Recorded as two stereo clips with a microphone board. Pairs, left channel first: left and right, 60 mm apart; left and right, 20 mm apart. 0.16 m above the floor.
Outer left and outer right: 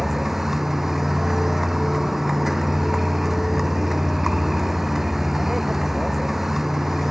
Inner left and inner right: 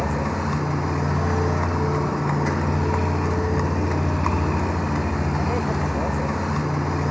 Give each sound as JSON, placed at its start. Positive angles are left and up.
{"t": 0.0, "sound": "a vehicle", "side_deg": -5}